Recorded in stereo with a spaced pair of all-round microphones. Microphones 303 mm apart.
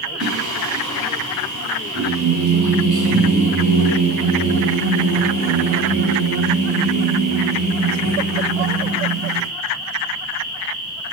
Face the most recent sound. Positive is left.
turn(degrees=-80)